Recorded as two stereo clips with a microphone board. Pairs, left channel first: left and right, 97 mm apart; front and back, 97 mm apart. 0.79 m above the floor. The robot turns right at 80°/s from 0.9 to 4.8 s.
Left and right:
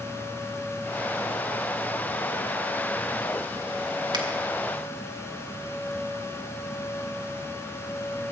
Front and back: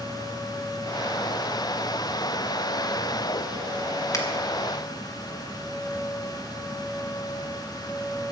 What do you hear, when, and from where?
4.1 s a finger snap: 55° right, 1.6 m; by 4.2 s 45° right, 1.6 m